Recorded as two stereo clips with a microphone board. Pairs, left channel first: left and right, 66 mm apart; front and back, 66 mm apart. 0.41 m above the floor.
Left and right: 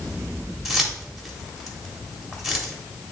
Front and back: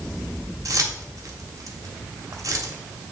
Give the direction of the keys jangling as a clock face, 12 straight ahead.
6 o'clock.